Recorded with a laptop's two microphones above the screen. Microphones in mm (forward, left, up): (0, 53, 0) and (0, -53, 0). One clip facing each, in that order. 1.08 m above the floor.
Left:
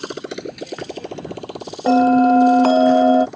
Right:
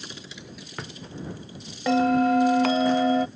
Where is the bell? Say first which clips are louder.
Left 8 dB; 35° left (ahead or behind).